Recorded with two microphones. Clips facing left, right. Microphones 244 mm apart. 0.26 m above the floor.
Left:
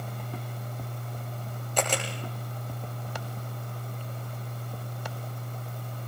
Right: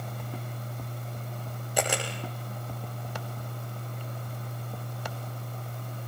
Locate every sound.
1.8 s a camera shutter: 10° right (ahead or behind), 7.5 m